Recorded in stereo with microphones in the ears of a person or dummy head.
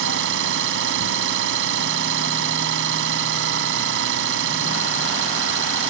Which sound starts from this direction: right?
An engine running, at 0.0 s.